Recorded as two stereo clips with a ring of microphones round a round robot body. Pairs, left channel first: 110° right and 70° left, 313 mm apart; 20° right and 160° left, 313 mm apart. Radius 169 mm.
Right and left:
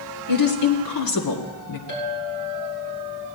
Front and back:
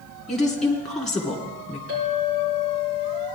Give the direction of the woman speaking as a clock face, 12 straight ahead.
4 o'clock.